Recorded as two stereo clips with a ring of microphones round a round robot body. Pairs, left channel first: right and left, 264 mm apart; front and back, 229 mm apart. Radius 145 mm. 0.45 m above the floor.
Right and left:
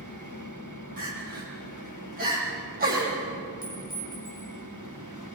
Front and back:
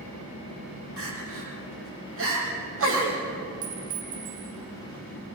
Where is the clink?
170° right, 8.5 m.